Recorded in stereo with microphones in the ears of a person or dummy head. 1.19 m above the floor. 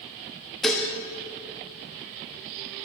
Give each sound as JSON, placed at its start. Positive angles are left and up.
{"t": 0.6, "sound": "dishes clattering", "side_deg": 0, "distance_m": 0.7}